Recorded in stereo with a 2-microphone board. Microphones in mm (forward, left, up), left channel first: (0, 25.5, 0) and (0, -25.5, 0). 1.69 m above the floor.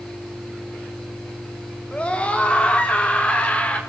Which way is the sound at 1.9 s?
25° left (ahead or behind).